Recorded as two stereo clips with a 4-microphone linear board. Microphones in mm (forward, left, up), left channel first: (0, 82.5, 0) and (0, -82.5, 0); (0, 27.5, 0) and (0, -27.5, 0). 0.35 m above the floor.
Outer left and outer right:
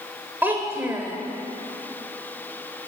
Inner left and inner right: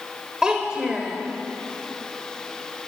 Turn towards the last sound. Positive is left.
turn(degrees=-15)  # may be behind; listen again after turning